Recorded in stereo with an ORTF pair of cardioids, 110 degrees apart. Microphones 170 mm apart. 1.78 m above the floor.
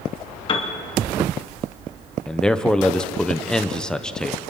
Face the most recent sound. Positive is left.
turn(degrees=5)